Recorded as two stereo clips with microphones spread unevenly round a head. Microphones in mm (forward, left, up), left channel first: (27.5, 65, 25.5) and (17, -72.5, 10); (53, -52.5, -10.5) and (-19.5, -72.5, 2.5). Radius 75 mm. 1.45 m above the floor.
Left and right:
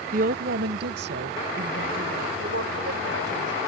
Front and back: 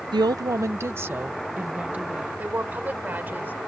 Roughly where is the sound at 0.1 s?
Behind right.